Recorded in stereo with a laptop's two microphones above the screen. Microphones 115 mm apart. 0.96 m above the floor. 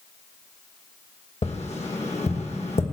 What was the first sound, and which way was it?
Tapping, 70° left (ahead or behind).